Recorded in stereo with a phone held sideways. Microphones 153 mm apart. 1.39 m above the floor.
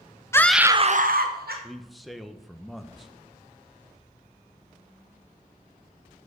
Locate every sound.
0.3 s a scream: 20° left (ahead or behind), 0.8 m; by 1.5 s 90° right, 1.3 m
1.6 s a man speaking: centre (ahead or behind), 0.7 m